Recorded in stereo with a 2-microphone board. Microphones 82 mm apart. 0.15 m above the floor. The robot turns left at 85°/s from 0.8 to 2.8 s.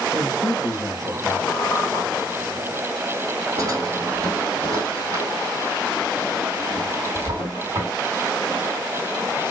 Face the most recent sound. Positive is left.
turn(degrees=-40)  # may be behind; listen again after turning